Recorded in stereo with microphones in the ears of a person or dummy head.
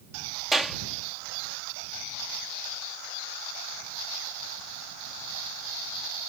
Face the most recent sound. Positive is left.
turn(degrees=0)  # may be behind; listen again after turning